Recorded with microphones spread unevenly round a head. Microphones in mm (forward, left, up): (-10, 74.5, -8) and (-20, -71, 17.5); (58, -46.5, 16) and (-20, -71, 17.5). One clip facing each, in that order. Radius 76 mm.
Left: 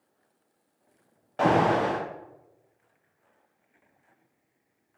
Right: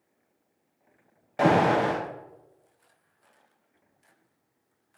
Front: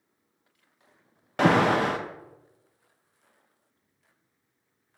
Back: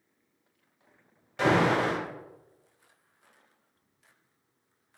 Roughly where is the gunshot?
I don't hear a gunshot.